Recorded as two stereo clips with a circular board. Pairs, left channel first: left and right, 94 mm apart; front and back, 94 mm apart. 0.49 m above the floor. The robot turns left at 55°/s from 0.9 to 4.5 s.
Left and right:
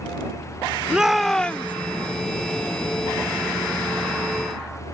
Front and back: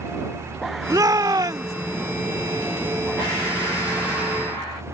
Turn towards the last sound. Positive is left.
turn(degrees=-5)